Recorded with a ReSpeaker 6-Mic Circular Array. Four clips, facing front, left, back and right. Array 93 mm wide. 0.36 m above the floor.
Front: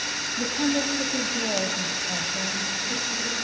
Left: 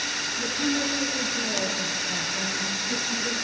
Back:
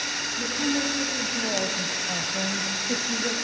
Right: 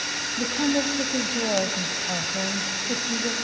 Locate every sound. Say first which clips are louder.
0.4 s a woman speaking: right 4 dB, front 2 dB; 60° right, 2.5 m; by 3.3 s 140° right, 1.8 m